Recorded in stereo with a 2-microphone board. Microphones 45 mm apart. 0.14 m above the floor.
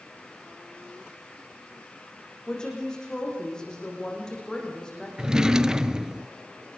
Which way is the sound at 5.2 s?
15° right (ahead or behind).